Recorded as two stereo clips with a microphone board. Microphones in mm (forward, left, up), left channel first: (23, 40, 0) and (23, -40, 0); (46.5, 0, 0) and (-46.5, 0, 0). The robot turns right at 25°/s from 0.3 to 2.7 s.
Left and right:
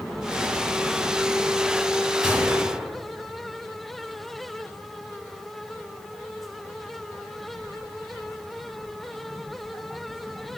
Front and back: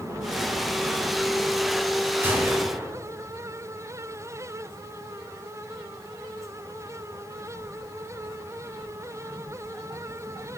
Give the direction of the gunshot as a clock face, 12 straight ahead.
5 o'clock.